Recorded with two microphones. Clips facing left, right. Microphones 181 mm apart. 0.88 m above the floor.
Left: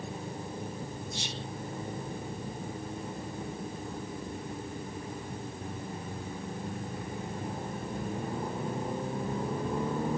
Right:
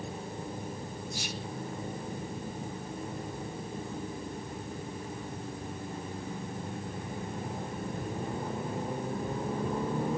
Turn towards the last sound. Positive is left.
turn(degrees=25)  # may be behind; listen again after turning